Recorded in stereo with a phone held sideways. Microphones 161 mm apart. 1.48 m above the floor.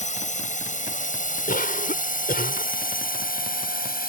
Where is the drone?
50° left (ahead or behind); by 4.1 s 65° left (ahead or behind).